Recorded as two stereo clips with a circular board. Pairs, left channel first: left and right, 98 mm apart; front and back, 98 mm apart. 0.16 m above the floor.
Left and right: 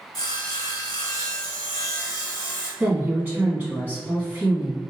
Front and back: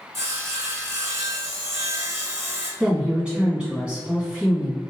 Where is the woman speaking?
125° right, 1.7 m.